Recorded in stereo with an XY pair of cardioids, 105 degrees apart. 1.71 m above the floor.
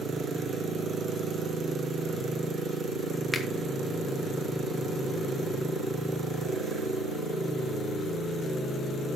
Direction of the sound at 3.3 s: 10° left.